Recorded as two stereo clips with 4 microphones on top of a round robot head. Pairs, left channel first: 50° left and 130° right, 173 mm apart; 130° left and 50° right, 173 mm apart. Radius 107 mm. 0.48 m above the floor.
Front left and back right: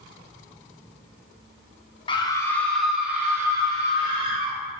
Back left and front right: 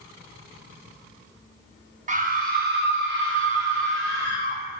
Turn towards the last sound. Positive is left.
turn(degrees=-75)